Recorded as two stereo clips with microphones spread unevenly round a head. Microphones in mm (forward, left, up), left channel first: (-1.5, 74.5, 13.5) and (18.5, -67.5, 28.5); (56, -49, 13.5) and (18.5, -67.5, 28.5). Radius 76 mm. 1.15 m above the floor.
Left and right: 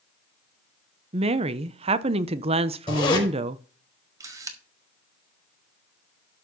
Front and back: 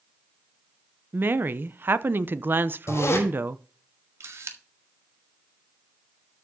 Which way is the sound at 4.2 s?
150° right.